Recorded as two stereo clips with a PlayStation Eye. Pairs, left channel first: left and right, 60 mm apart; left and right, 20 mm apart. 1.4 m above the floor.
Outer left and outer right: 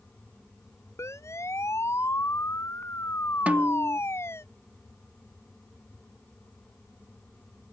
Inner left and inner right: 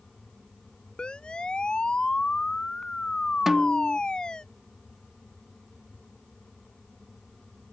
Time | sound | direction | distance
1.0 | a siren | 55° left (ahead or behind) | ?
3.5 | a snare drum | 25° right (ahead or behind) | ?